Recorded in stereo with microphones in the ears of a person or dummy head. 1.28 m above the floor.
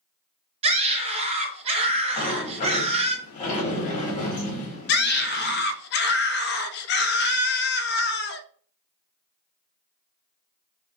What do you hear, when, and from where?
0.6 s a scream: 35° right (ahead or behind), 0.9 m
2.2 s a sliding door: 40° left (ahead or behind), 1.4 m
4.9 s a scream: 50° left (ahead or behind), 0.6 m